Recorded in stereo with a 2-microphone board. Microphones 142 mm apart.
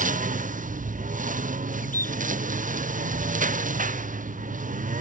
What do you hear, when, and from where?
0.0 s a lawn mower: 65° right (ahead or behind)
1.8 s a bird: 80° left